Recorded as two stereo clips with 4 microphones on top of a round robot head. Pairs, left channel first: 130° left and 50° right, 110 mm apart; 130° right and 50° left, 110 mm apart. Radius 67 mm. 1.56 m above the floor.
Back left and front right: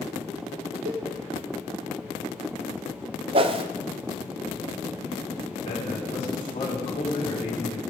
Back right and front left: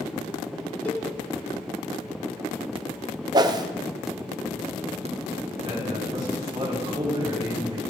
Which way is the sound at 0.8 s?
55° right.